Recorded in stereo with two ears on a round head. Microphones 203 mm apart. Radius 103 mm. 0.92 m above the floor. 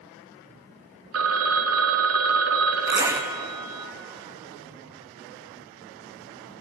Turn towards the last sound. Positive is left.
turn(degrees=-15)  # may be behind; listen again after turning